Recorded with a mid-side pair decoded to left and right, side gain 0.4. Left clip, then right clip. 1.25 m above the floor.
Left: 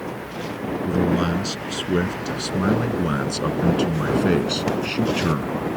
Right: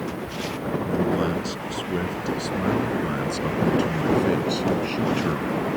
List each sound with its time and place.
0.8 s a man speaking: 50° left; by 5.5 s 40° left